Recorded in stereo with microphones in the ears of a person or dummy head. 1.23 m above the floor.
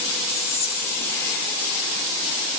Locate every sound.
0.3 s whispering: 15° left (ahead or behind), 3 m